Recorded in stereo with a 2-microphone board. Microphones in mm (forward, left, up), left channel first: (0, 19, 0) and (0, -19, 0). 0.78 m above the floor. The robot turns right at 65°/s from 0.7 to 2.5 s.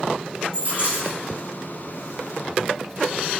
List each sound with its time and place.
0.5 s a dropped coin: 45° right (ahead or behind), 1.7 m; by 1.2 s 20° right (ahead or behind), 1.7 m